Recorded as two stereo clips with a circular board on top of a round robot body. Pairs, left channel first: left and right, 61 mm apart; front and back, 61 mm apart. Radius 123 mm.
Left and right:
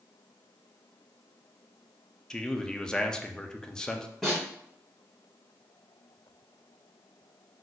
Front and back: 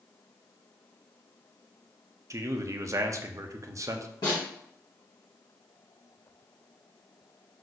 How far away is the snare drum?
About 1.4 m.